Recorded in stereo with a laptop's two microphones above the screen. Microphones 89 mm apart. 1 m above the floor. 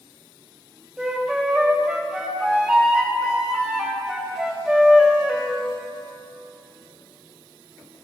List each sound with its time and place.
1.0 s a flute: 5° right (ahead or behind), 1.3 m